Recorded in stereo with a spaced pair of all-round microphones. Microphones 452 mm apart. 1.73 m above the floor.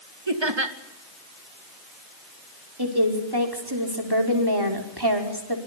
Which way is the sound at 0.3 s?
75° right (ahead or behind).